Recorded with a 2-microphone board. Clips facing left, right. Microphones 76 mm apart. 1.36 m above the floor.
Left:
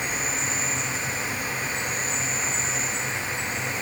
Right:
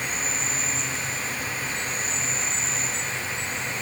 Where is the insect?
15° left (ahead or behind), 1.4 m.